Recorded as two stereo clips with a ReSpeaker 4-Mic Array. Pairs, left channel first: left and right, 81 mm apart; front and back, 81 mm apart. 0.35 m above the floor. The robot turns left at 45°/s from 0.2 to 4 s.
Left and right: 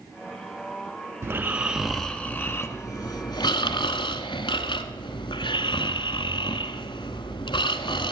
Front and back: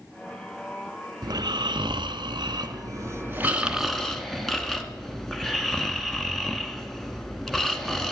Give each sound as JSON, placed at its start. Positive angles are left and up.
{"t": 1.2, "sound": "snoring", "azimuth_deg": -150, "distance_m": 1.0}